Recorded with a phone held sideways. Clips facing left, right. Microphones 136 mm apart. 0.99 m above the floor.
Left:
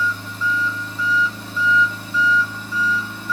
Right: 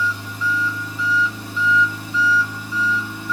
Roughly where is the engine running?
Centre.